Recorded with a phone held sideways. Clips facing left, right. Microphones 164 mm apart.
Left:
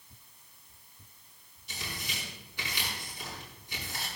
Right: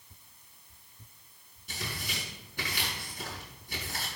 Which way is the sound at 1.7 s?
50° right (ahead or behind).